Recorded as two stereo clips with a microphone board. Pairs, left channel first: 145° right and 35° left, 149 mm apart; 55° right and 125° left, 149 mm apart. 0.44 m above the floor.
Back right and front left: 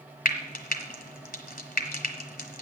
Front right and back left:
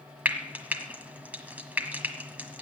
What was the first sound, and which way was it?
Frying, 155° right.